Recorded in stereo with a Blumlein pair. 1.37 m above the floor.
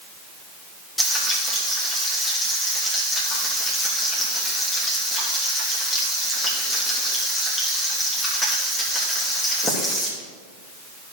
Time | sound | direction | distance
1.0 | frying | 10° left | 2.5 m